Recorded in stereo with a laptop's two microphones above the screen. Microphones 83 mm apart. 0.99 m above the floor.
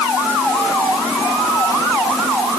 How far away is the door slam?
No door slam in this recording.